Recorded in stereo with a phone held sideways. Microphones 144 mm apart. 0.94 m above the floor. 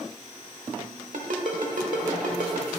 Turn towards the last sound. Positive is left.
turn(degrees=-65)  # may be behind; listen again after turning